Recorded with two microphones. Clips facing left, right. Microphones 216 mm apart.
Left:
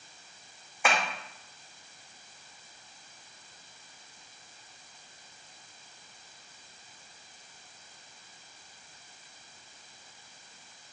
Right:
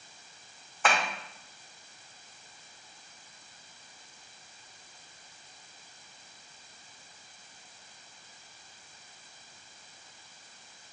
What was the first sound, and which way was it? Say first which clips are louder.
Tapping: even; 10° left (ahead or behind).